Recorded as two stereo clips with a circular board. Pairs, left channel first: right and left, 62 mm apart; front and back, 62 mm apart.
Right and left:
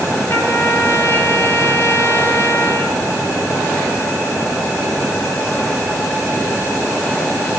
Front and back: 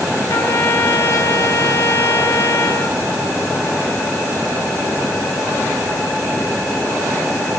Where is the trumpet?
35° right, 7 m.